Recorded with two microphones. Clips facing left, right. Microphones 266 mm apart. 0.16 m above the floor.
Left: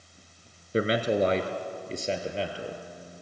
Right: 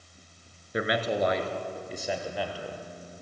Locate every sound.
0.7 s a man speaking: 30° left (ahead or behind), 1.8 m; by 2.8 s 25° left (ahead or behind), 3 m